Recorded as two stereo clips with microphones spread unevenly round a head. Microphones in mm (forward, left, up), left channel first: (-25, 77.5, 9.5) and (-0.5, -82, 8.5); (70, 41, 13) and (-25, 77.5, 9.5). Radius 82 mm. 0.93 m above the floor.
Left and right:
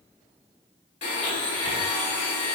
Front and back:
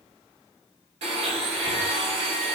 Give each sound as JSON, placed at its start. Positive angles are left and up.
{"t": 1.0, "sound": "a blender", "azimuth_deg": 145, "distance_m": 1.7}